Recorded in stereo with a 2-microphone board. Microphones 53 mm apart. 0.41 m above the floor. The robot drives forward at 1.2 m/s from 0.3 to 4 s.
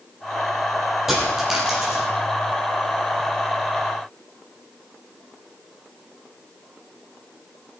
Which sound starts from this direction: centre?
A dropped coin, at 1.1 s.